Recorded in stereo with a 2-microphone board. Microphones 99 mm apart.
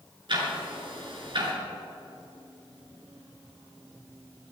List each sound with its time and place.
0.3 s ticking: 55° right (ahead or behind), 3.5 m